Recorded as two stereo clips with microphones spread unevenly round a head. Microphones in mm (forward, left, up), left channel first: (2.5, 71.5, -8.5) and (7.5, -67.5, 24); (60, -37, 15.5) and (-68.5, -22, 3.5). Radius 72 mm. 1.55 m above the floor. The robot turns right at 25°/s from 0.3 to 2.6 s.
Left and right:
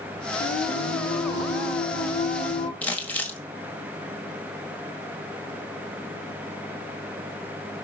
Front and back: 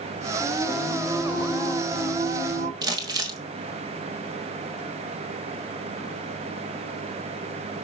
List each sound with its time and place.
0.4 s singing: 70° left, 2.5 m; by 2.7 s 125° left, 2.5 m
2.8 s crumpling: 170° right, 1.4 m